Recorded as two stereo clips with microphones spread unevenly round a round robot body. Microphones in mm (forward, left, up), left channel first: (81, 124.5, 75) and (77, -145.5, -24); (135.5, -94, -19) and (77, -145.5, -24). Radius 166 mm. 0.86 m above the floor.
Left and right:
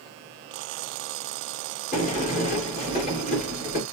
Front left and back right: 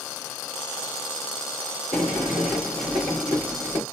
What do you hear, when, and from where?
1.9 s a sliding door: 160° left, 3 m